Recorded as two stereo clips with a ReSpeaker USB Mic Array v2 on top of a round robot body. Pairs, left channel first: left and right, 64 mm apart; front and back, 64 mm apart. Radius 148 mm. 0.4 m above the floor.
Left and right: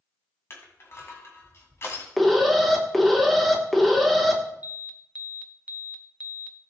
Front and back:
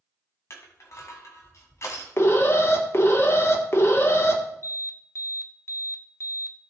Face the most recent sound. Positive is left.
turn(degrees=-30)